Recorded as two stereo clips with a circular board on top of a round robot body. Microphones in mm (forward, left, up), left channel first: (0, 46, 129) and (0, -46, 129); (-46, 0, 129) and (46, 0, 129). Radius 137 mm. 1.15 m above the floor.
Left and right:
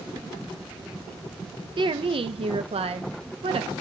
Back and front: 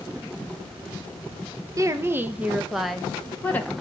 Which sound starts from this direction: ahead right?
A woman speaking, at 1.8 s.